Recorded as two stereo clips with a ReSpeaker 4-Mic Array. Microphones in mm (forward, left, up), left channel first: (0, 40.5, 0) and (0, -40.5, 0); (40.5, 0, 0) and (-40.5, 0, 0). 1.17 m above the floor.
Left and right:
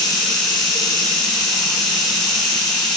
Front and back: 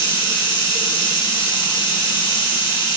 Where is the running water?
5° left, 7.5 m.